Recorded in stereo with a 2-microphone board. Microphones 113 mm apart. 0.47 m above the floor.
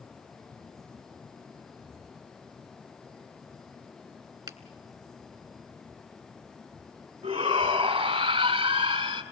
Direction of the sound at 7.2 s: 65° right (ahead or behind).